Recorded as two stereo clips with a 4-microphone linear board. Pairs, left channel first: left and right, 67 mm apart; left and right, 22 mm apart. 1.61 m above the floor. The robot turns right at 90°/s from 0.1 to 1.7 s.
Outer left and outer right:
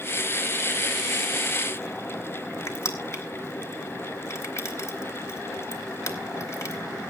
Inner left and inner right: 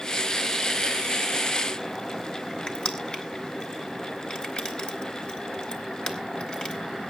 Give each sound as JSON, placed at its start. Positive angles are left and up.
{"t": 2.7, "sound": "crushing", "side_deg": 45, "distance_m": 2.5}